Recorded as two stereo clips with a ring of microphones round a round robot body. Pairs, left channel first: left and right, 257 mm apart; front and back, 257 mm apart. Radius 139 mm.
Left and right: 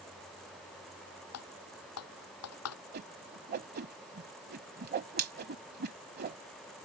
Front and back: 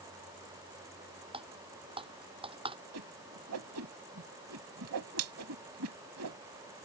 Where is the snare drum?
I don't hear a snare drum.